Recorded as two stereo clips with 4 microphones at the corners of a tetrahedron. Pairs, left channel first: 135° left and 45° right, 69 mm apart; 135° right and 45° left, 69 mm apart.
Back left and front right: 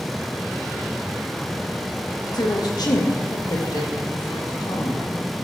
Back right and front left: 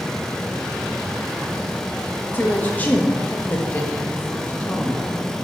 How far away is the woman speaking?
About 1.7 m.